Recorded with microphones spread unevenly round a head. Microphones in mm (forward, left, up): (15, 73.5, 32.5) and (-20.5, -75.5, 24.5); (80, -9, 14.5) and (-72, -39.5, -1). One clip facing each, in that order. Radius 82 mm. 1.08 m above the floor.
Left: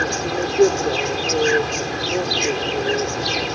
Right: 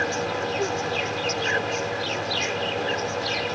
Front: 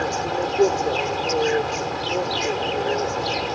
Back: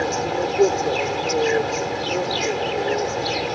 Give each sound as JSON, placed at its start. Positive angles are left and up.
{"t": 0.0, "sound": "an insect", "azimuth_deg": 105}